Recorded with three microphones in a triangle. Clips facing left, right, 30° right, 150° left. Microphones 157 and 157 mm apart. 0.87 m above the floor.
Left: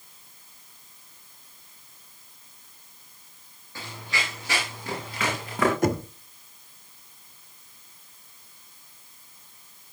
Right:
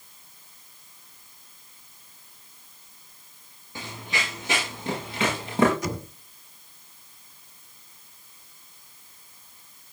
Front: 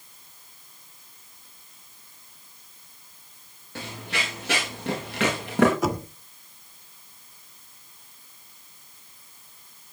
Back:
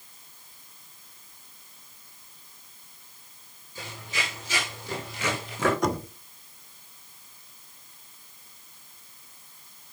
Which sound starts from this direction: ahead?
Running footsteps, at 3.8 s.